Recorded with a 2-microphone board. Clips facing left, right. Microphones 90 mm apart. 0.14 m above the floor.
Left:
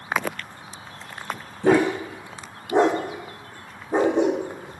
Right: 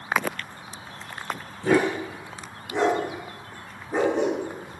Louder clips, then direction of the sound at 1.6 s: Left 3 dB; 60° left (ahead or behind).